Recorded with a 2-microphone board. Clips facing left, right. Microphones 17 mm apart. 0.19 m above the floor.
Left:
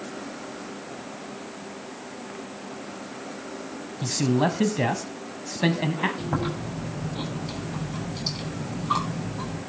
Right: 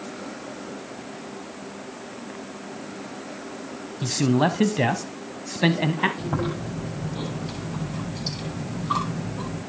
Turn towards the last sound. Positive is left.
turn(degrees=5)  # may be behind; listen again after turning